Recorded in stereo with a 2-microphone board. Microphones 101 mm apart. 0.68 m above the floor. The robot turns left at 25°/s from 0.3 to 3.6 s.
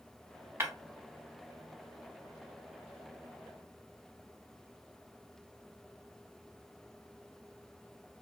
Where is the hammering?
I don't hear hammering.